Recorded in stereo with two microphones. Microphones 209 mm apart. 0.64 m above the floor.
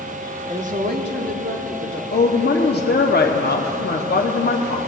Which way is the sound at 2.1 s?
50° left (ahead or behind).